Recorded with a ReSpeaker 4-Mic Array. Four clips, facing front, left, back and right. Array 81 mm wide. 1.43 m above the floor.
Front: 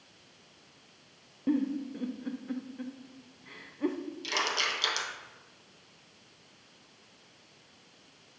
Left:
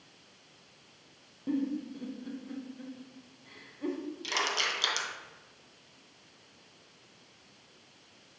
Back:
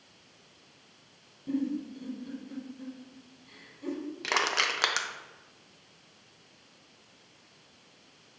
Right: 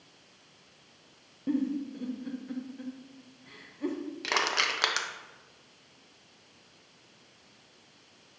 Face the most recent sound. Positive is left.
turn(degrees=-140)